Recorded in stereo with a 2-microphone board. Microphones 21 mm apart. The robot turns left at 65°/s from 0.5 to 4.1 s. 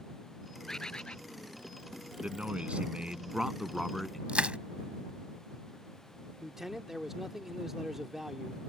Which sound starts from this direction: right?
Crushing, at 4.3 s.